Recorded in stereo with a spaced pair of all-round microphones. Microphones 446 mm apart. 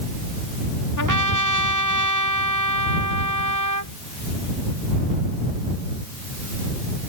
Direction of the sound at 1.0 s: 45° right (ahead or behind).